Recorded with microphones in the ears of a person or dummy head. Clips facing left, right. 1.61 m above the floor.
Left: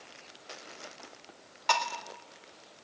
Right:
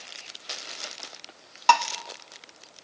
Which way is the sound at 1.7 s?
45° right (ahead or behind).